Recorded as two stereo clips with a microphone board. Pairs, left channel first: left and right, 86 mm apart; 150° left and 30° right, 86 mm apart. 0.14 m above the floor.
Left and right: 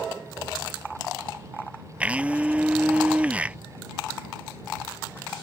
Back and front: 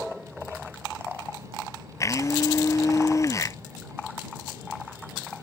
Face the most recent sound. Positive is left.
turn(degrees=-165)